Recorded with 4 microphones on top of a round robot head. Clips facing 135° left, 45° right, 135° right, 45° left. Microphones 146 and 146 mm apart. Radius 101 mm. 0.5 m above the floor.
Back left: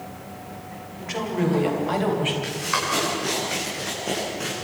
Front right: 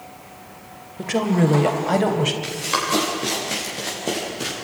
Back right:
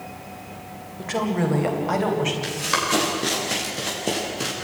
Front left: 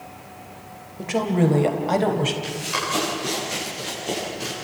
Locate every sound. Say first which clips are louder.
1.0 s a woman speaking: front right 6 dB, front left 3 dB; 30° right, 2.5 m; by 2.3 s 5° right, 3.5 m
2.4 s running footsteps: front right 2 dB, back right 2 dB; 110° right, 8.5 m; by 4.5 s 105° right, 7.5 m